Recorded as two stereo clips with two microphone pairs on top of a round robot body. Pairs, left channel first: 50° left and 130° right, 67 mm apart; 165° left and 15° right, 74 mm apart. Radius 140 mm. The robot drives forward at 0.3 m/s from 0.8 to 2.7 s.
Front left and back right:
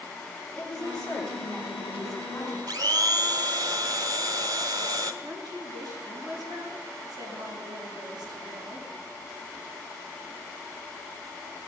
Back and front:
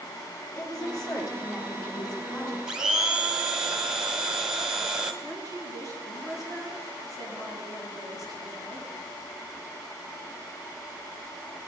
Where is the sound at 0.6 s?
130° left, 9 m.